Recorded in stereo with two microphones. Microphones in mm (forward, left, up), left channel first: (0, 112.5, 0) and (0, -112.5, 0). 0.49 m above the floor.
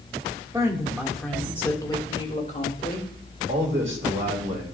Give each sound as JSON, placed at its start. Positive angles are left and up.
{"t": 0.5, "sound": "a woman speaking", "side_deg": -15, "distance_m": 1.3}
{"t": 3.5, "sound": "a man speaking", "side_deg": -60, "distance_m": 2.0}